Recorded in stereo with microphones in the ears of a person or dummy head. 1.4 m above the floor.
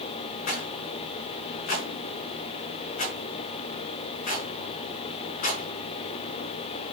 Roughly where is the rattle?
Left.